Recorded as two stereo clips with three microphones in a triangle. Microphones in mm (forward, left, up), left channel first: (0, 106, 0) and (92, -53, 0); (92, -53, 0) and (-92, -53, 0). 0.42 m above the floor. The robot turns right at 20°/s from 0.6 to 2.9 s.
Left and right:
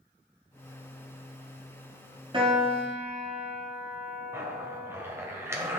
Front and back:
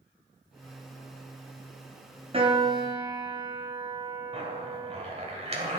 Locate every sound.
2.3 s a piano: 120° right, 1.9 m; by 5.0 s 110° right, 1.9 m
4.3 s a zipper: 135° right, 1.9 m